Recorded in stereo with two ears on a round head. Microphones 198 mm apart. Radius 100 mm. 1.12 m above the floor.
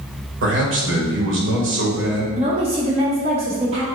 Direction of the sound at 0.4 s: 60° right (ahead or behind).